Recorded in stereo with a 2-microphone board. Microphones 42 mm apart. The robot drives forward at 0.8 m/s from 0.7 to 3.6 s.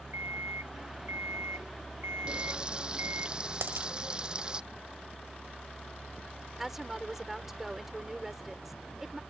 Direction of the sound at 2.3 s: 25° right (ahead or behind).